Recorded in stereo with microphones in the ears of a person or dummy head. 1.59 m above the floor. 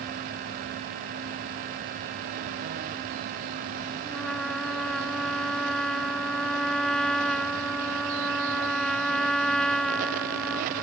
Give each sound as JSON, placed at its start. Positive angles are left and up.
{"t": 4.0, "sound": "a trumpet", "side_deg": 0}